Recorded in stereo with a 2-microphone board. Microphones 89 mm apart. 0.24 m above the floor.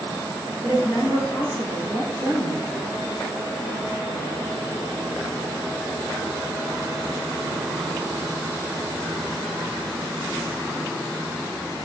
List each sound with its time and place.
0.6 s a woman speaking: 50° left (ahead or behind), 2.5 m